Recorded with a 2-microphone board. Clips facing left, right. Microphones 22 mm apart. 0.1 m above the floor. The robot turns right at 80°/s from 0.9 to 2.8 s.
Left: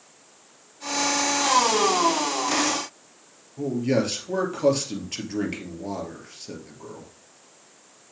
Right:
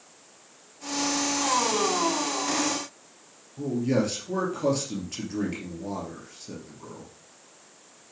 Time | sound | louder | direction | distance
3.6 | a man speaking | left 2 dB | 25° left (ahead or behind) | 2.5 m